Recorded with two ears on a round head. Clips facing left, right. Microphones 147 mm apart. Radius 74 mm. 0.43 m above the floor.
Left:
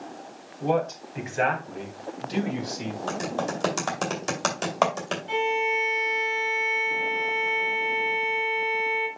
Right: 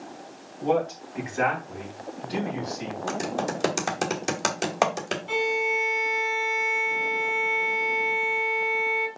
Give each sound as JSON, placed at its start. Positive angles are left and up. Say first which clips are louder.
{"t": 0.6, "sound": "a man speaking", "louder": "right 1 dB", "side_deg": 15, "distance_m": 3.5}
{"t": 3.1, "sound": "typing on a keyboard", "louder": "right 1 dB", "side_deg": -10, "distance_m": 2.5}
{"t": 5.3, "sound": "a violin", "louder": "left 1 dB", "side_deg": -50, "distance_m": 1.8}